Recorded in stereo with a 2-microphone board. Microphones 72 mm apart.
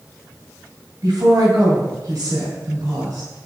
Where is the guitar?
I don't hear a guitar.